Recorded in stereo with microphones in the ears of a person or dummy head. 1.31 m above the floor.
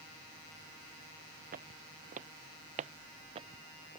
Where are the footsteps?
50° right (ahead or behind); by 4.0 s 30° right (ahead or behind).